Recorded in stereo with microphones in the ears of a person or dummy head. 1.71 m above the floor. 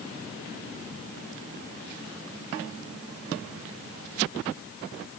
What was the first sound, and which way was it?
Only background noise.